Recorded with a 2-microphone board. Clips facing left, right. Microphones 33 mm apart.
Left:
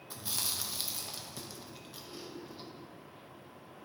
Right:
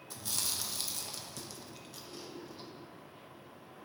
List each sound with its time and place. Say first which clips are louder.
0.1 s chewing: left 1 dB; 15° left (ahead or behind), 0.8 m